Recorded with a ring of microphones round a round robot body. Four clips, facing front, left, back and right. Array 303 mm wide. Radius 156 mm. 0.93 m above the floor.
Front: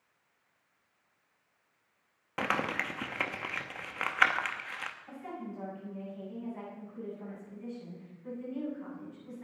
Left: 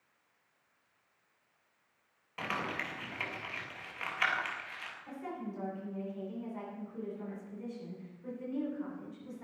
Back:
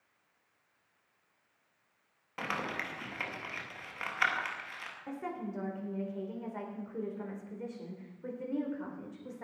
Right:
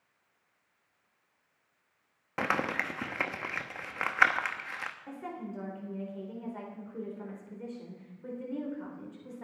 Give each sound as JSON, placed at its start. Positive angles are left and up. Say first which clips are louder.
{"t": 2.4, "sound": "crumpling", "louder": "right 6 dB, front 5 dB", "azimuth_deg": -60, "distance_m": 1.1}
{"t": 5.1, "sound": "a woman speaking", "louder": "left 3 dB, back 7 dB", "azimuth_deg": -155, "distance_m": 3.5}